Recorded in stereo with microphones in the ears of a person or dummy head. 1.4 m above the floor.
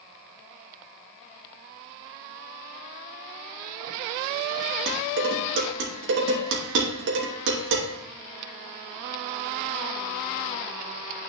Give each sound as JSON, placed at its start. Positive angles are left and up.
{"t": 4.9, "sound": "dishes clattering", "side_deg": -75, "distance_m": 2.5}